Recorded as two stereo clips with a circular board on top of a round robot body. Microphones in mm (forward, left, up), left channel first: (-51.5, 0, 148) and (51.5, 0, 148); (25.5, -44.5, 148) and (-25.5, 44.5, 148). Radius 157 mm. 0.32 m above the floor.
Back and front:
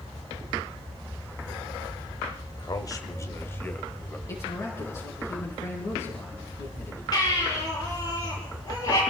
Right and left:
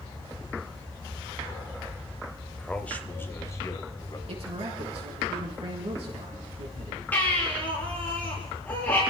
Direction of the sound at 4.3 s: 120° left.